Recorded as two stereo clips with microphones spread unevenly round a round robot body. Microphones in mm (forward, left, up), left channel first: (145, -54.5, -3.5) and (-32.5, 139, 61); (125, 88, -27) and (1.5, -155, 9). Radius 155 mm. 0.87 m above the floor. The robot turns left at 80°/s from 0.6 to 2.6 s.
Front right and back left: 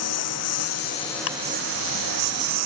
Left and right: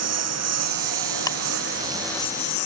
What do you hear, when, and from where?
0.0 s a lawn mower: 90° right; by 2.7 s 110° left
1.3 s ticking: 15° right; by 1.4 s 20° right